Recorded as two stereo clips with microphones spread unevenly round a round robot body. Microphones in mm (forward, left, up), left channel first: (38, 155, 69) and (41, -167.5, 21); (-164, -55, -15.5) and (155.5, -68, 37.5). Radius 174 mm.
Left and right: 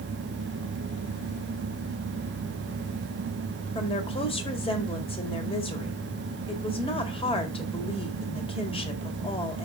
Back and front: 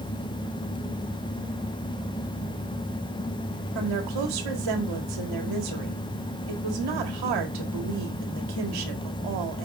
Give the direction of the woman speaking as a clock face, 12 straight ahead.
12 o'clock.